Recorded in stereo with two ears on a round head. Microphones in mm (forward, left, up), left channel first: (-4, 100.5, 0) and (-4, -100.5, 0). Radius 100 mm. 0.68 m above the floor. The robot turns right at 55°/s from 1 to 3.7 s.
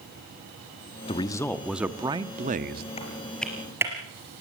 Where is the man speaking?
145° left, 1.0 m; by 2.9 s 115° right, 1.0 m.